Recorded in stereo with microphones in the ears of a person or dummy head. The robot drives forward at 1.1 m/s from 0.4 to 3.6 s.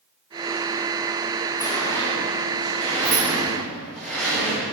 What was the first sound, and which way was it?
A sliding door, 15° left (ahead or behind).